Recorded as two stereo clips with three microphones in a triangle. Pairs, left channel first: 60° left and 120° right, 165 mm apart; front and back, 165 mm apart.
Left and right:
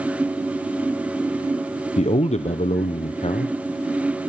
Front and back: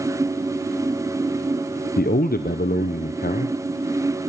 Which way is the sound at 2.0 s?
15° left.